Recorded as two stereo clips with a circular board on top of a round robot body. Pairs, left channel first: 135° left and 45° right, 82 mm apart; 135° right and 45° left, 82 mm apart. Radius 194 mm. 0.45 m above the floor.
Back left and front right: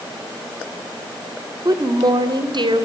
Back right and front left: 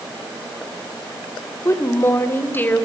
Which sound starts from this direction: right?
A woman speaking, at 1.6 s.